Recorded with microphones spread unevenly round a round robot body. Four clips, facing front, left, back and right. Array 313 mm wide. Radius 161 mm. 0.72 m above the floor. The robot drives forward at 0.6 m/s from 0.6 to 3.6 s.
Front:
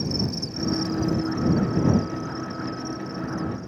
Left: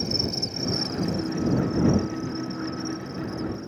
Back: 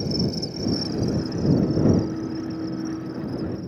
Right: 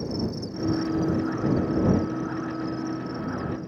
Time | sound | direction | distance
0.0 | an insect | 110° left | ?